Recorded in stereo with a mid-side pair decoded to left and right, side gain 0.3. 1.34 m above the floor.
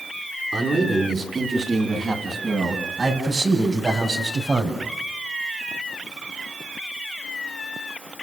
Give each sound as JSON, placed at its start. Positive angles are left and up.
{"t": 0.5, "sound": "a man speaking", "azimuth_deg": -50, "distance_m": 10.0}